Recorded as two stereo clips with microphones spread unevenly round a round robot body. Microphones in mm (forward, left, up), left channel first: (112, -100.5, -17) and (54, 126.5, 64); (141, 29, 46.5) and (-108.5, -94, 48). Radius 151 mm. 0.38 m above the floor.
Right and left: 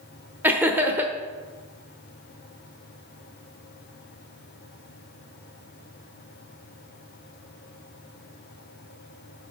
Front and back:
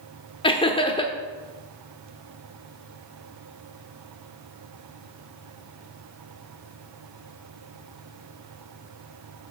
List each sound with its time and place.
0.4 s laughter: 15° right, 0.9 m